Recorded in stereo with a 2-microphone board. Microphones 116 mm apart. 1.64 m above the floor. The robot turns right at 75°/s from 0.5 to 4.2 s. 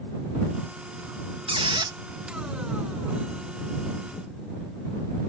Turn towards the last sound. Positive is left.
turn(degrees=125)